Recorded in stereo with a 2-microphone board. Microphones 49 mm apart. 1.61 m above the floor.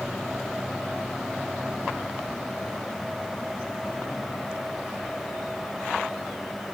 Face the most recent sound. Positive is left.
No sound to turn to.